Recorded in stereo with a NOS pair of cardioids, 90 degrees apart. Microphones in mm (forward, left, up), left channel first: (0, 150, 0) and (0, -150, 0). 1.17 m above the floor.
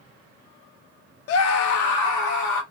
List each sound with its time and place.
1.3 s a scream: 50° left, 0.5 m; by 2.6 s 75° left, 1.6 m